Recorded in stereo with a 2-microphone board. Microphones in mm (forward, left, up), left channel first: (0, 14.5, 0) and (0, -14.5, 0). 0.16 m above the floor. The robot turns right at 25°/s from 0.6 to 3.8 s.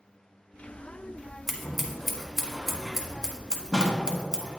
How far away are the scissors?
About 1.4 m.